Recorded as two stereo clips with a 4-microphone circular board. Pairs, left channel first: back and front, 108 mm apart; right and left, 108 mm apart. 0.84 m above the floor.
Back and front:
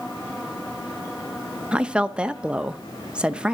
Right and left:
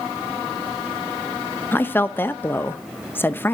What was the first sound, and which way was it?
A woman speaking, 65° right.